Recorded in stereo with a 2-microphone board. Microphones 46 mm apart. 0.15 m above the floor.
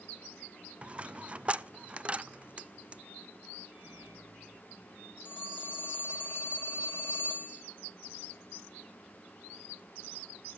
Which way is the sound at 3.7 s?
30° right (ahead or behind).